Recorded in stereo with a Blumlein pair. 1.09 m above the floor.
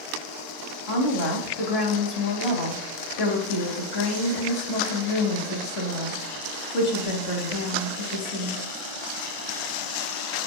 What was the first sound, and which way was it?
A woman speaking, 35° left.